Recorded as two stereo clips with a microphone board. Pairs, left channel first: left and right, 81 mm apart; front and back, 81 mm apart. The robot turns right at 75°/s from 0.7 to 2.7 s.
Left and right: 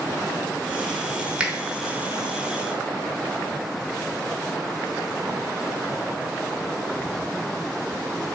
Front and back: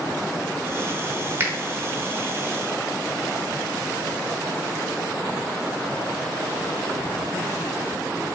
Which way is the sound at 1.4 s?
155° right.